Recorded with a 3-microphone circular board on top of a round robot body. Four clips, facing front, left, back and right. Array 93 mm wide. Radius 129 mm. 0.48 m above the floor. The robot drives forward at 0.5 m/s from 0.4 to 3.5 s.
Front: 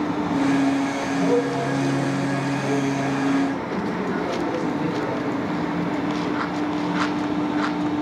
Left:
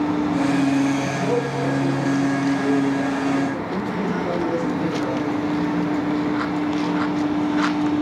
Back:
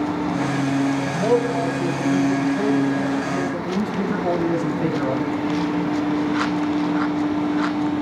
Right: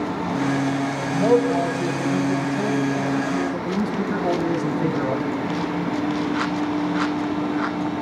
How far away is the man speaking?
About 3 m.